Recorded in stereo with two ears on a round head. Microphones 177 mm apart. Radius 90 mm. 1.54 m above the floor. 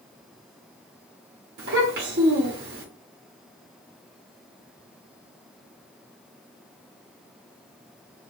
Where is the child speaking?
50° right (ahead or behind), 1.3 m.